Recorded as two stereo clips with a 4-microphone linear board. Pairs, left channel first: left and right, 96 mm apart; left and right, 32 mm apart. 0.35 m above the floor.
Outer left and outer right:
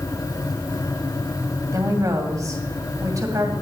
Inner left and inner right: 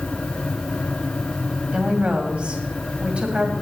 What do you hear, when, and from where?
1.7 s a woman speaking: 35° right (ahead or behind), 2.5 m